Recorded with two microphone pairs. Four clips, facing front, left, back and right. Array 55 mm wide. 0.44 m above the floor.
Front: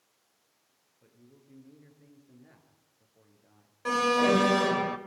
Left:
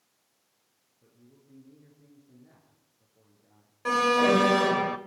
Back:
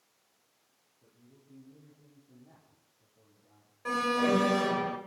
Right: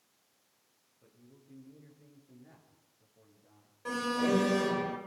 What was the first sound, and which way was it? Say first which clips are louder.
A man speaking: left 1 dB, front 3 dB; 20° right.